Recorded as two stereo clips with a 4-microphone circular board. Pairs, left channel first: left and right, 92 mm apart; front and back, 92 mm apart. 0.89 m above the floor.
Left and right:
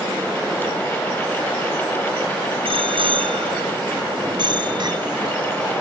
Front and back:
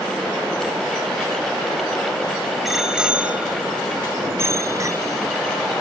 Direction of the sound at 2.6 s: 90° right.